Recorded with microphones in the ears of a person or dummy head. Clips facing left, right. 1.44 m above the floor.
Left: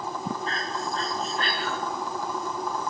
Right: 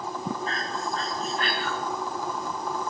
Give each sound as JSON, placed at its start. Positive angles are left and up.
{"t": 0.5, "sound": "breathing", "side_deg": 35, "distance_m": 6.5}